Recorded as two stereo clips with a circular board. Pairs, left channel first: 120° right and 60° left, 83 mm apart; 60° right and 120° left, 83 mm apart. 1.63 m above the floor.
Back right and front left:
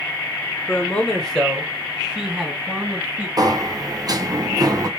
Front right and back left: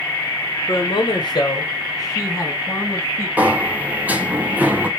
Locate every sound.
0.7 s a man speaking: 55° right, 0.8 m; by 3.3 s 5° right, 2.5 m
3.4 s a sliding door: 55° left, 0.6 m